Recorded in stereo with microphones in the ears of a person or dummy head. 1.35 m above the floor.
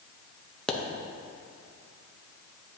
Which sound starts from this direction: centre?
A pop, at 0.7 s.